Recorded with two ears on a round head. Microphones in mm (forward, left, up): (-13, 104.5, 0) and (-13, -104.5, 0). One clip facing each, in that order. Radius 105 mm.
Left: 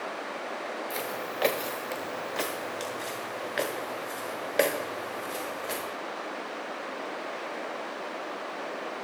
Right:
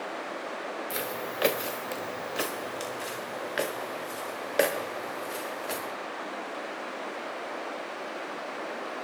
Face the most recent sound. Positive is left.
turn(degrees=0)  # may be behind; listen again after turning